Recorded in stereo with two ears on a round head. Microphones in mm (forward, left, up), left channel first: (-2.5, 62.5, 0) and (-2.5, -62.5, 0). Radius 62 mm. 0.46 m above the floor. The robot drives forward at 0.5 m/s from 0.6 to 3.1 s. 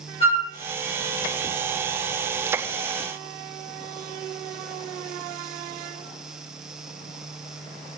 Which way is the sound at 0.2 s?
45° left (ahead or behind).